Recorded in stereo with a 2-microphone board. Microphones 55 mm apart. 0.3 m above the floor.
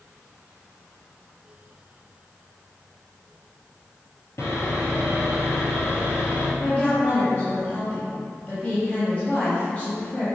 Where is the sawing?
55° left (ahead or behind), 1.6 m.